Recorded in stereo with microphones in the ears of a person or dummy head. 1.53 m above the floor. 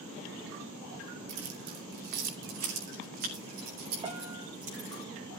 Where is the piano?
20° right (ahead or behind), 2.5 m.